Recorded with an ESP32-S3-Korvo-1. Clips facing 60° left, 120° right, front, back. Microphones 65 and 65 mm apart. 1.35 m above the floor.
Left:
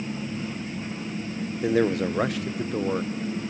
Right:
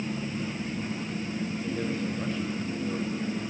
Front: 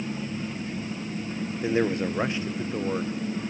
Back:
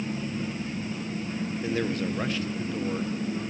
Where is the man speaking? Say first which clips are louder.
Left 12 dB, front 5 dB; 65° left, 0.7 m.